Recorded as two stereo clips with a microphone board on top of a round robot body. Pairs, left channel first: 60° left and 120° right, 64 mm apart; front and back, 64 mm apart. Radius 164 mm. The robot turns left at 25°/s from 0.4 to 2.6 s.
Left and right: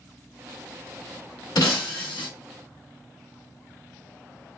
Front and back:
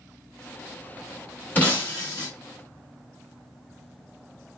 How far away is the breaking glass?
About 0.9 m.